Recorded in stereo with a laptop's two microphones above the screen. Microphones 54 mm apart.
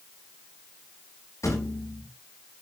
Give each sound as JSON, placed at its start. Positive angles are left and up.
{"t": 1.4, "sound": "a thud", "side_deg": 60, "distance_m": 8.5}